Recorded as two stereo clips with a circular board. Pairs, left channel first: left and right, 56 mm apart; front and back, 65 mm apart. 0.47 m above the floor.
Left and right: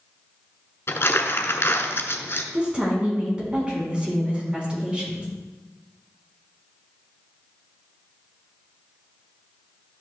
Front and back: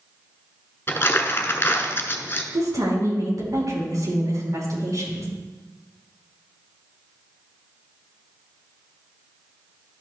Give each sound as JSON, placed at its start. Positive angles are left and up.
{"t": 0.9, "sound": "crumpling", "azimuth_deg": 50, "distance_m": 1.1}
{"t": 2.5, "sound": "a woman speaking", "azimuth_deg": -160, "distance_m": 4.5}